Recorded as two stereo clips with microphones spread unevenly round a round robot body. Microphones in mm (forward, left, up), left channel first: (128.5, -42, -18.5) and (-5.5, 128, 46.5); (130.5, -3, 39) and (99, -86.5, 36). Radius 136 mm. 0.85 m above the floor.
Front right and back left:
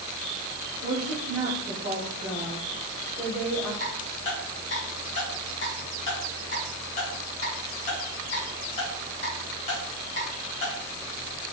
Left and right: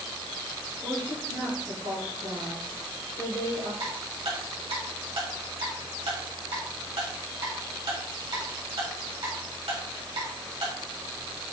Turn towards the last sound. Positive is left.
turn(degrees=-110)